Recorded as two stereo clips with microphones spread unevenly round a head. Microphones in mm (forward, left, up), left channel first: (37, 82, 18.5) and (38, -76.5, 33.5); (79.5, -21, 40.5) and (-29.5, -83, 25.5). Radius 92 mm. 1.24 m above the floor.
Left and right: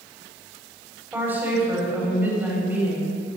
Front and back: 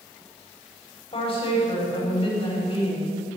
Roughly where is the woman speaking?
Ahead.